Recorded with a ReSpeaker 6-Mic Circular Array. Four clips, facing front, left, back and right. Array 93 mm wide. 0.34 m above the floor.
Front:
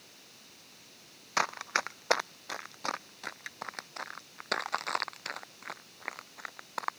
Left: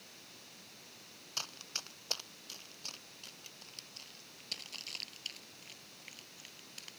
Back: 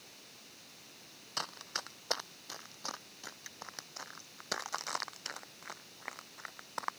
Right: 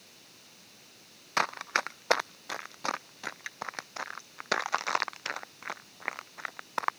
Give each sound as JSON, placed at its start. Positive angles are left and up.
{"t": 1.4, "sound": "running footsteps", "azimuth_deg": -55}